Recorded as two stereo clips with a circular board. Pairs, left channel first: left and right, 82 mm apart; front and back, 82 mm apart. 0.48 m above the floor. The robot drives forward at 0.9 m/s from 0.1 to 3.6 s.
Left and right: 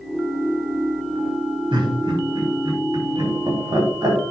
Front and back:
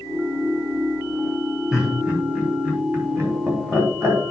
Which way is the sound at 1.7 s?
100° right.